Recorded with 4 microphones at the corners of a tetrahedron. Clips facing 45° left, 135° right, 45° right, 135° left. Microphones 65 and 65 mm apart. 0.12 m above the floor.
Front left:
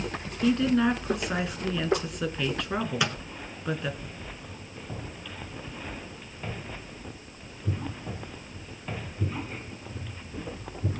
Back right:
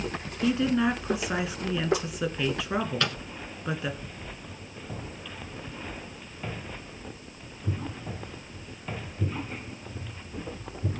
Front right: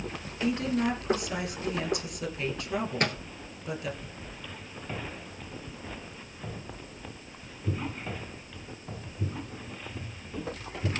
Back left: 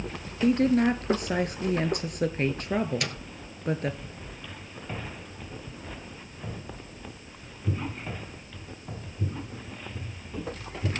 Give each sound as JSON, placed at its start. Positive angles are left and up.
{"t": 0.4, "sound": "a woman speaking", "azimuth_deg": 140, "distance_m": 1.4}
{"t": 3.0, "sound": "a microwave", "azimuth_deg": -25, "distance_m": 1.1}